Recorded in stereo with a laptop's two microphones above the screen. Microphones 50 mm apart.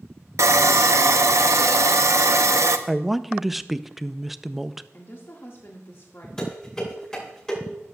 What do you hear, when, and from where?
0.4 s sawing: 70° right (ahead or behind), 0.6 m
2.9 s a man speaking: 5° right (ahead or behind), 0.5 m
4.9 s a woman speaking: 55° left (ahead or behind), 1.7 m
6.4 s dishes clattering: 15° left (ahead or behind), 6 m